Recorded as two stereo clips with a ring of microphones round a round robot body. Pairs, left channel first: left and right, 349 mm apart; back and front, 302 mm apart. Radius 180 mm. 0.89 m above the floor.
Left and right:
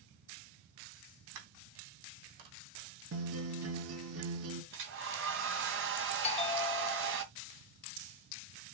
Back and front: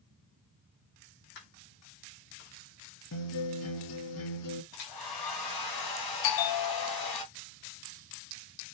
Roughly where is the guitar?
Behind right.